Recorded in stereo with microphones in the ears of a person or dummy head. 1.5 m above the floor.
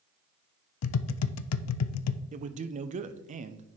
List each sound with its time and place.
0.8 s tapping: 85° left, 0.5 m
2.3 s a man speaking: 40° right (ahead or behind), 0.6 m